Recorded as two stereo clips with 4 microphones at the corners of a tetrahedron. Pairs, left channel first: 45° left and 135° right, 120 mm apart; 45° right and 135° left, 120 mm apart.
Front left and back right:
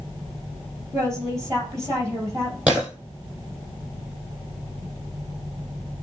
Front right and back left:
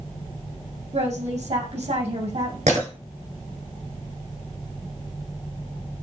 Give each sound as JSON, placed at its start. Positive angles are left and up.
{"t": 0.9, "sound": "a woman speaking", "azimuth_deg": 160, "distance_m": 4.5}
{"t": 2.7, "sound": "breaking glass", "azimuth_deg": 150, "distance_m": 3.5}